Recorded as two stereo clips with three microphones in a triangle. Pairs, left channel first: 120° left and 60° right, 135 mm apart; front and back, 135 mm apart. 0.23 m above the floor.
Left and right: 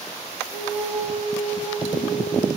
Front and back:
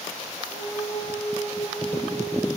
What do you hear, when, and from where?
0.5 s a flute: 95° left, 2.5 m